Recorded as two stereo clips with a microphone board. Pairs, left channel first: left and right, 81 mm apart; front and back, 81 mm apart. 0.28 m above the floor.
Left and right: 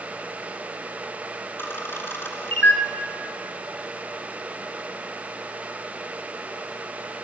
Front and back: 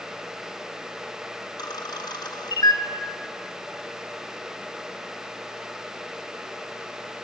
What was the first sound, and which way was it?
A camera shutter, 30° left.